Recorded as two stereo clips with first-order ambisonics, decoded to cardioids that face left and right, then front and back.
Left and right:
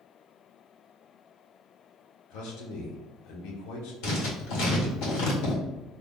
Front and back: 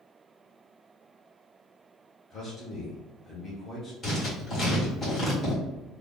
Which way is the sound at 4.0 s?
70° left.